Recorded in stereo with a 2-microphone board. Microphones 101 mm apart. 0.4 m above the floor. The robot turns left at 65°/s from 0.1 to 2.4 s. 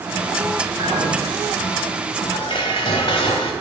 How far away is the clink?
About 2.5 m.